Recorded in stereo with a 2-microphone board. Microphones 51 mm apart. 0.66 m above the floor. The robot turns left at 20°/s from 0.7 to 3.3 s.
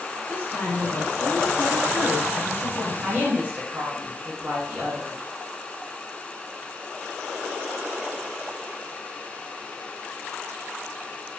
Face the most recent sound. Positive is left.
turn(degrees=-30)  # may be behind; listen again after turning